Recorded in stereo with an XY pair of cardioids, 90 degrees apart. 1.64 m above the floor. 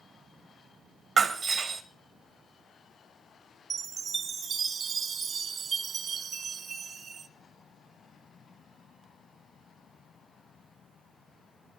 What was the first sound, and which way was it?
Breaking glass, 50° right.